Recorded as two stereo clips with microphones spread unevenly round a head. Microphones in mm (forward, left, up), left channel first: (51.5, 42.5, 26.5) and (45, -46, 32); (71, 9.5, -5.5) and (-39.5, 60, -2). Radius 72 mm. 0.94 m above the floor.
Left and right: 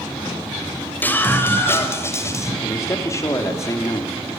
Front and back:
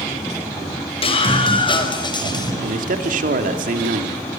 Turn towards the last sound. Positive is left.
turn(degrees=150)